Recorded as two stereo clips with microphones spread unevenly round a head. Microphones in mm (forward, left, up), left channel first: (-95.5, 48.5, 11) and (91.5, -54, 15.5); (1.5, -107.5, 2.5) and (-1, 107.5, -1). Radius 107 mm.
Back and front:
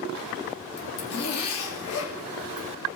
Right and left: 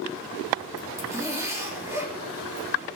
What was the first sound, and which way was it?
A zipper, 170° left.